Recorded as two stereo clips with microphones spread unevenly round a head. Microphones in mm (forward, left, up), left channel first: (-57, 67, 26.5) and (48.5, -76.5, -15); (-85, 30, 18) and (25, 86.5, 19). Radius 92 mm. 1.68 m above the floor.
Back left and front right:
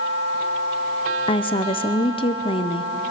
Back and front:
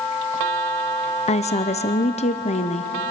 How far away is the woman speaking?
About 0.7 m.